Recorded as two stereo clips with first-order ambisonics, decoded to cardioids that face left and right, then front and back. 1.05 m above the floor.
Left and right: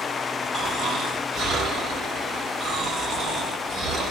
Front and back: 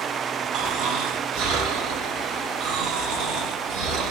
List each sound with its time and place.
0.5 s snoring: 160° right, 1.4 m